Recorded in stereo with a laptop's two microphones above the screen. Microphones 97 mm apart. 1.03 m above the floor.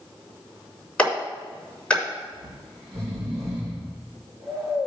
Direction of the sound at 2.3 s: 55° right (ahead or behind).